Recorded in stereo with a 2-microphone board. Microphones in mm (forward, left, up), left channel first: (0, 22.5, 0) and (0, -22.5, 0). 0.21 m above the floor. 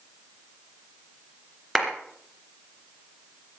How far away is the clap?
About 3 m.